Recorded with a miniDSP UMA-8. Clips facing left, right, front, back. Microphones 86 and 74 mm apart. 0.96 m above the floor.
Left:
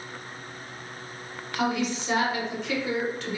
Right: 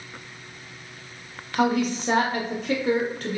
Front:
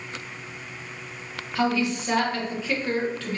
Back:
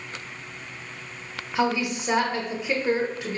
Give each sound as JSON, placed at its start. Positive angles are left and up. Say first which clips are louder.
{"t": 1.6, "sound": "a woman speaking", "louder": "right 5 dB, even", "azimuth_deg": -115, "distance_m": 0.6}